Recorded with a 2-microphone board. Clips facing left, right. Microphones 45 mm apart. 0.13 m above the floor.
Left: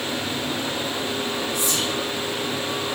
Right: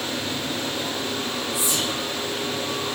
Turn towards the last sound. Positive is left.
turn(degrees=-20)  # may be behind; listen again after turning